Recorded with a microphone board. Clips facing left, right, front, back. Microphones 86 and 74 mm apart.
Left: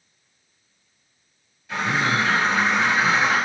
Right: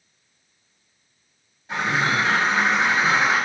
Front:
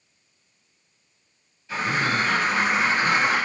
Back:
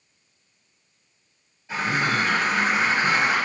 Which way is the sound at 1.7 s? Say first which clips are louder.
Even, even; 135° right.